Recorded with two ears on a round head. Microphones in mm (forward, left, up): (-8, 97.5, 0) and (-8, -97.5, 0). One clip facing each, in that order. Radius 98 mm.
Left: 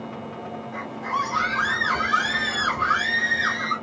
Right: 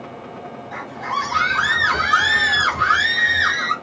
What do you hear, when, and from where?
0.7 s a scream: 85° right, 1.1 m